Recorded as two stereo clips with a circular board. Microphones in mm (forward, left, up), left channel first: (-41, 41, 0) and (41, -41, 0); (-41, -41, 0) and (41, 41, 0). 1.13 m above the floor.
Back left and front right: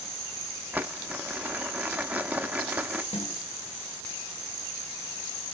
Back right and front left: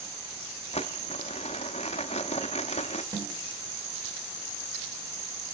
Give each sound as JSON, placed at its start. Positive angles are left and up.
{"t": 0.7, "sound": "crumpling", "azimuth_deg": -120, "distance_m": 0.9}
{"t": 3.1, "sound": "a snare drum", "azimuth_deg": 100, "distance_m": 3.0}